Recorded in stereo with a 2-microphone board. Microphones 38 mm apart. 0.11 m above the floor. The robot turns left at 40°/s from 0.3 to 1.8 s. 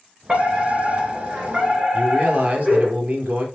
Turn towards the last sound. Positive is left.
turn(degrees=-40)  # may be behind; listen again after turning